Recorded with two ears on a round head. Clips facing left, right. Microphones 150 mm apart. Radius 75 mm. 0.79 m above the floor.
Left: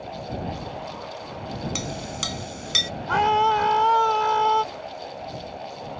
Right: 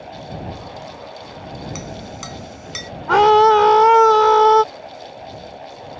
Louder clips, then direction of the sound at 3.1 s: Right 9 dB; 70° right (ahead or behind).